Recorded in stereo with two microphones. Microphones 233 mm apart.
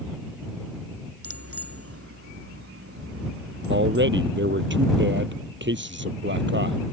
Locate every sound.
1.2 s a bicycle bell: 70° right (ahead or behind)
3.7 s a man speaking: 50° right (ahead or behind)